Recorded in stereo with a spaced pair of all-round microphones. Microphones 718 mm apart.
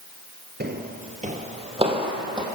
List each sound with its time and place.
0.6 s footsteps: 15° right (ahead or behind), 1.7 m; by 2.5 s 5° right (ahead or behind), 4 m